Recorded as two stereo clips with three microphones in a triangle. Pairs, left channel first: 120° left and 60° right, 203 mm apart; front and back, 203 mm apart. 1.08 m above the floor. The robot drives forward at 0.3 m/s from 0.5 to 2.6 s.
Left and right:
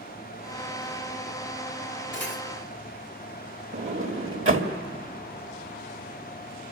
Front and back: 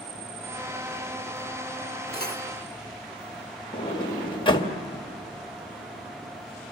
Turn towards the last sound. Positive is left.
turn(degrees=-70)